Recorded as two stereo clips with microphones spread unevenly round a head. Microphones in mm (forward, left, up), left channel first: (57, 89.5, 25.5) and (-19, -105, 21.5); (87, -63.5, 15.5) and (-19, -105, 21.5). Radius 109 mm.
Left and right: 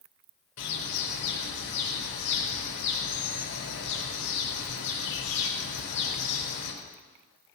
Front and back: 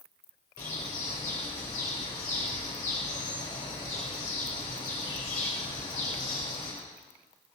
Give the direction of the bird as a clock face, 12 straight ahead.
10 o'clock.